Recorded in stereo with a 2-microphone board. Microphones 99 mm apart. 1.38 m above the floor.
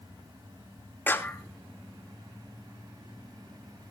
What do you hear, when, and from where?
1.1 s a clap: 20° left (ahead or behind), 2.5 m